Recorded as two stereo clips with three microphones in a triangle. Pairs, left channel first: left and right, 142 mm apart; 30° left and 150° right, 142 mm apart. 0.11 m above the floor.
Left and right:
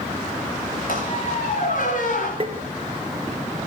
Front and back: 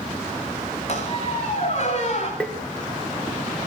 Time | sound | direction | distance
0.9 | a squeak | 70° left | 6.5 m
2.4 | tapping | 50° right | 2.5 m